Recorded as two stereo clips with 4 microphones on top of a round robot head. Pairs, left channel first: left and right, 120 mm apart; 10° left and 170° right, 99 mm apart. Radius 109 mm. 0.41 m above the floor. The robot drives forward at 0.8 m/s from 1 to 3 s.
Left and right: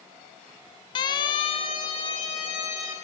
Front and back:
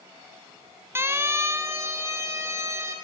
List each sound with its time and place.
0.9 s a siren: 130° left, 3 m